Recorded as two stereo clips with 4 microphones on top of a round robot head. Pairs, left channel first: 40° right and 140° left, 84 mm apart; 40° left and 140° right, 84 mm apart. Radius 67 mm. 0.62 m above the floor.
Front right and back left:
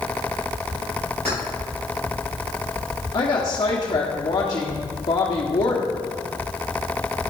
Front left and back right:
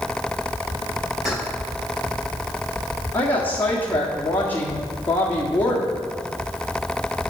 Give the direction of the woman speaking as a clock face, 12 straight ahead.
1 o'clock.